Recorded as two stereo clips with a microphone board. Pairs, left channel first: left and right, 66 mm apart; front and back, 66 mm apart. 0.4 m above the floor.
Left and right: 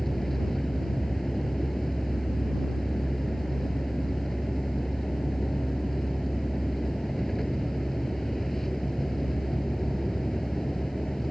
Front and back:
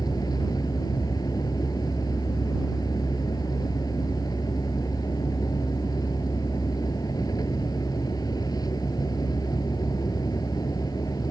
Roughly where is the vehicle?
Ahead.